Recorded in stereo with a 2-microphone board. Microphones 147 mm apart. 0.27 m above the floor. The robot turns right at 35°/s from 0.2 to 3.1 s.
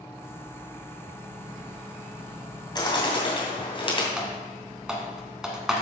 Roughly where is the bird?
Left.